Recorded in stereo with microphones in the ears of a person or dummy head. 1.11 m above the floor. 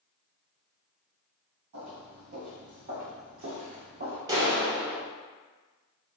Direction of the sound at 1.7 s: 45° right (ahead or behind).